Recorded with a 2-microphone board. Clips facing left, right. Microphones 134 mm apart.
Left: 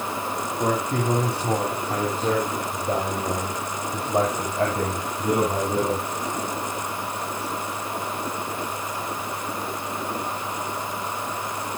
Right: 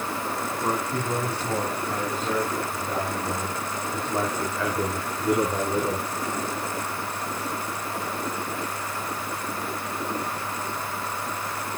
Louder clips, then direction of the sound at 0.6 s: Left 5 dB; 65° left (ahead or behind).